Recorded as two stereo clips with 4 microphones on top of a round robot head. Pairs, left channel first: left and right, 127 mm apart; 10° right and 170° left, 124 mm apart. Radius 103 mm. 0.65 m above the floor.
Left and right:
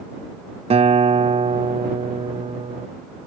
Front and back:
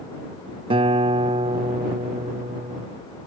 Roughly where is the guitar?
Behind right.